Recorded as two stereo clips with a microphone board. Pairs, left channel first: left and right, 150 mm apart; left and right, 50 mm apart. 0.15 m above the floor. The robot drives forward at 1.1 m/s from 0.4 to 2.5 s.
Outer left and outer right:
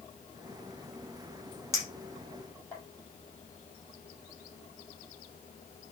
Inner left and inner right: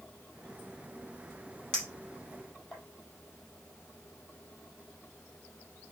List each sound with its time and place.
1.7 s a clink: 20° left (ahead or behind), 3 m; by 2.8 s 15° left (ahead or behind), 4 m